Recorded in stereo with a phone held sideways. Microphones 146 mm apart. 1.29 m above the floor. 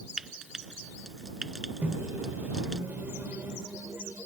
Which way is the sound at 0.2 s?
5° right (ahead or behind).